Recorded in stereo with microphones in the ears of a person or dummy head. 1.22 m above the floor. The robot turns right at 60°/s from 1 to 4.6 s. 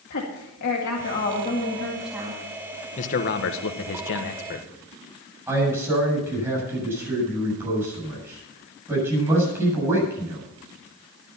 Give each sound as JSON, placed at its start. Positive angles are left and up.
{"t": 0.1, "sound": "a woman speaking", "azimuth_deg": 120, "distance_m": 2.0}
{"t": 3.0, "sound": "a man speaking", "azimuth_deg": 40, "distance_m": 1.4}
{"t": 5.5, "sound": "a man speaking", "side_deg": -15, "distance_m": 7.5}